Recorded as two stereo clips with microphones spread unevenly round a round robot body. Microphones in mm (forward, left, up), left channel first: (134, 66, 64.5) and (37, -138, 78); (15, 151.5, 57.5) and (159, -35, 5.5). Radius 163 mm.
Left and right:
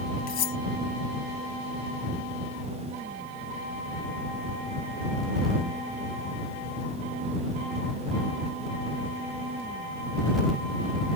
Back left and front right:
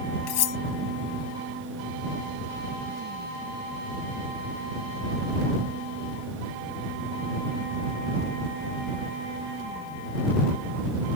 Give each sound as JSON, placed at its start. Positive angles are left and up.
{"t": 0.3, "sound": "cutlery clinking", "azimuth_deg": 115}